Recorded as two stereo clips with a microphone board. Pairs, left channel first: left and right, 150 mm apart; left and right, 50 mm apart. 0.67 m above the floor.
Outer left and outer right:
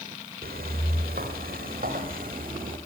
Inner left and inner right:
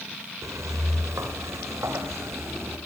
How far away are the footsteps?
About 6 m.